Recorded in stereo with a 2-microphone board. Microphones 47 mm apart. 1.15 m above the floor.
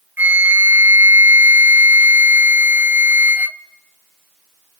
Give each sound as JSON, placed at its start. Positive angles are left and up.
{"t": 0.2, "sound": "a flute", "side_deg": -40, "distance_m": 0.9}